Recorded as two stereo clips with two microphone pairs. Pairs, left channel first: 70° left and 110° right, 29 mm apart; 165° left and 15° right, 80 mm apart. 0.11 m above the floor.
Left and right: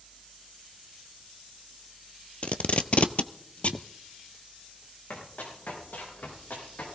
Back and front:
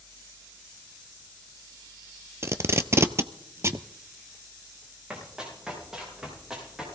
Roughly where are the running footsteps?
Ahead left.